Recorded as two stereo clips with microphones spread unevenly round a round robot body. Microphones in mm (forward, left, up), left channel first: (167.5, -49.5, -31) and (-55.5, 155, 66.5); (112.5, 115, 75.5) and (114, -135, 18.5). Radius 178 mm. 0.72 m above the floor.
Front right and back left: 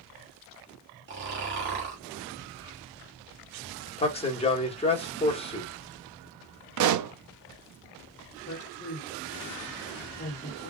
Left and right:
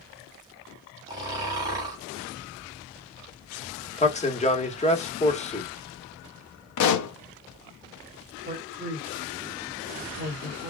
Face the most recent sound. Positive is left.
turn(degrees=-65)